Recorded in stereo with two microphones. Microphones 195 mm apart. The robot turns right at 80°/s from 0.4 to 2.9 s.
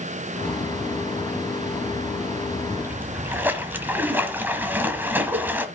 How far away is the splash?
About 1.3 m.